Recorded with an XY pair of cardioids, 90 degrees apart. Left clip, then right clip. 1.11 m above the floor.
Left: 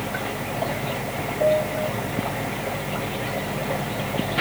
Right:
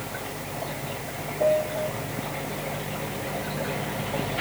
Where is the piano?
10° left.